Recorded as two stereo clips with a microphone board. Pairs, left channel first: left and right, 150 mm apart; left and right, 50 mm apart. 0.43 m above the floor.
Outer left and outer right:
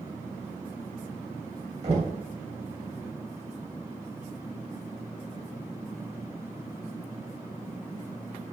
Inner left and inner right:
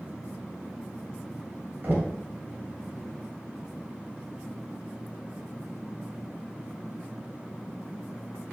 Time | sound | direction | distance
1.8 | knocking | 45° right (ahead or behind) | 2.5 m